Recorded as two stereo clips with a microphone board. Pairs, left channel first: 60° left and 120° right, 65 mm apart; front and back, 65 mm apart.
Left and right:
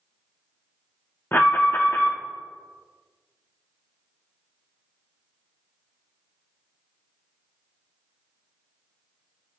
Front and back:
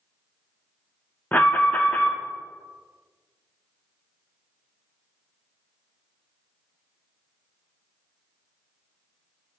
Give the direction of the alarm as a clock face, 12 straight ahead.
11 o'clock.